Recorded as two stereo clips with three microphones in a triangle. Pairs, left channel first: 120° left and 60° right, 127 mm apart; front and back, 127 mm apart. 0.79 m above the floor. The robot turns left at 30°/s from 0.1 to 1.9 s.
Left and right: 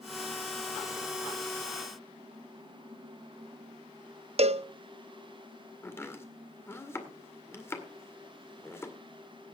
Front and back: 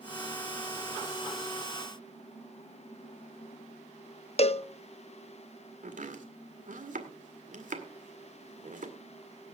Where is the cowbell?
30° right, 0.5 m.